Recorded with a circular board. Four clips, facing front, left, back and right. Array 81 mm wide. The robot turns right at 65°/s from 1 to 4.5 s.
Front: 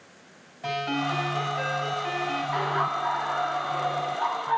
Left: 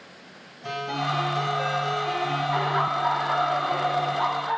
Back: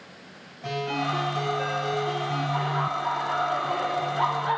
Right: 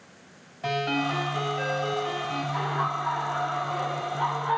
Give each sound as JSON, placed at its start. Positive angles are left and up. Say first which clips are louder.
{"t": 0.6, "sound": "a ringtone", "louder": "right 2 dB, even", "azimuth_deg": -65, "distance_m": 6.0}
{"t": 2.5, "sound": "laughter", "louder": "left 3 dB, front 3 dB", "azimuth_deg": 50, "distance_m": 3.0}